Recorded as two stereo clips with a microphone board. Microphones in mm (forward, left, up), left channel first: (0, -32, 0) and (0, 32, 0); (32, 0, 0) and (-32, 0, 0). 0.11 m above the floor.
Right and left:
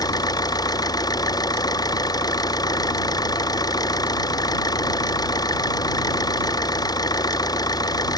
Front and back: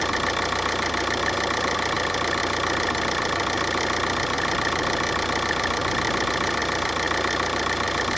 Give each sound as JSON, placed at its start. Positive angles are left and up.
{"t": 0.0, "sound": "an engine running", "azimuth_deg": -90}